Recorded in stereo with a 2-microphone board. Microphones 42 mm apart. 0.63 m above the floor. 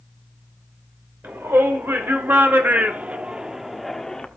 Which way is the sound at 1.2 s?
70° right (ahead or behind).